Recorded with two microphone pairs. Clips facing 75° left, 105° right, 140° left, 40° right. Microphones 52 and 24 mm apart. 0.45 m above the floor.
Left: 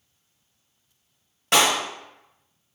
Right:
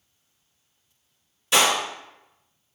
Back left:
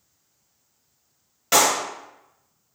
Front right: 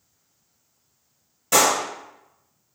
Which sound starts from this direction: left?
A clap, at 1.5 s.